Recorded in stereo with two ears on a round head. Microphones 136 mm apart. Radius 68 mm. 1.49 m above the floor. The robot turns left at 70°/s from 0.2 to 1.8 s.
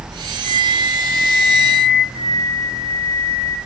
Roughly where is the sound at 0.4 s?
Behind.